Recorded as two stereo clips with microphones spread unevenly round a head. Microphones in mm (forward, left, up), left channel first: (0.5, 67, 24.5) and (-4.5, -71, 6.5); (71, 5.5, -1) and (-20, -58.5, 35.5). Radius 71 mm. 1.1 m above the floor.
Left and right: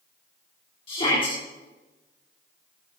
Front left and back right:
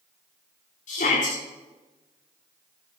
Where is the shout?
35° left, 2 m.